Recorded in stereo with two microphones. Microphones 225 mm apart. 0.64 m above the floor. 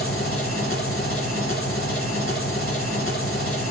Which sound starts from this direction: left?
An engine running, at 0.0 s.